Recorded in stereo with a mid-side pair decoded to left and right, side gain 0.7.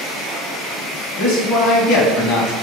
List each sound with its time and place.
1.2 s a man speaking: 65° left, 2 m